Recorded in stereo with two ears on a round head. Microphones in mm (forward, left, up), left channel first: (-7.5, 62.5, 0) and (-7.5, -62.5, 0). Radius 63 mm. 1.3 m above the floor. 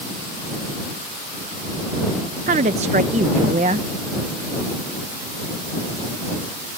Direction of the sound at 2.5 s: 50° right (ahead or behind).